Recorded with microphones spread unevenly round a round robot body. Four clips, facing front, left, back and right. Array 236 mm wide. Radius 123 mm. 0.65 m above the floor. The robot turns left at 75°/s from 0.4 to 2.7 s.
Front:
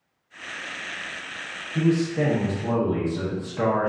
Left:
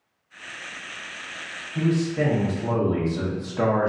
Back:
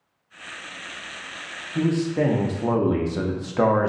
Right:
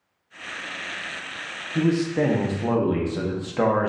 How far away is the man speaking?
About 0.7 m.